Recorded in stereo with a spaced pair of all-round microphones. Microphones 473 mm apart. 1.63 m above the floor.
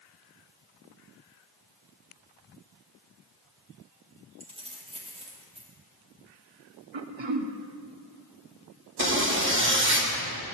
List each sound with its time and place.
4.4 s keys jangling: 10° right (ahead or behind), 1.4 m
6.9 s throat clearing: 70° right (ahead or behind), 0.6 m
9.0 s a zipper: 25° right (ahead or behind), 1.1 m